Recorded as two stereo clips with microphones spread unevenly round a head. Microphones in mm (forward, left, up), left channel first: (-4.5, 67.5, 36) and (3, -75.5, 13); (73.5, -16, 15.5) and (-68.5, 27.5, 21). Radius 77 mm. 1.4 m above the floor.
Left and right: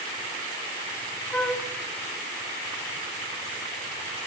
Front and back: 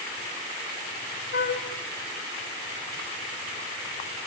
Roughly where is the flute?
Ahead.